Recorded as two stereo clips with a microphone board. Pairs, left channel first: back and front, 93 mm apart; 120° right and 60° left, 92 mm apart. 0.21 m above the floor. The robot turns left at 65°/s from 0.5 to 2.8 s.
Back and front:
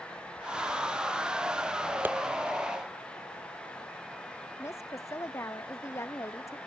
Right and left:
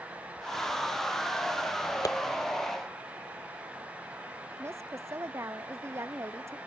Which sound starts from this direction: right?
Tapping, at 2.0 s.